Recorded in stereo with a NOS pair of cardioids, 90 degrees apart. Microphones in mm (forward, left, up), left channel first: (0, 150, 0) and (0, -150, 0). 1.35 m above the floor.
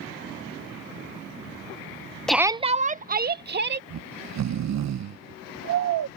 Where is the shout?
5° left; by 3.8 s 35° right.